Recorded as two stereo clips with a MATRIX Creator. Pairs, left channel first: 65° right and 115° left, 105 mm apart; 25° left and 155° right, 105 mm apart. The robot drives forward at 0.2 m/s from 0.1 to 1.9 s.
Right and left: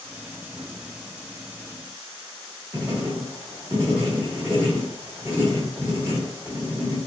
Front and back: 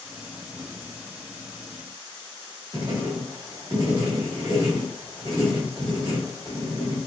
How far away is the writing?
About 1.0 m.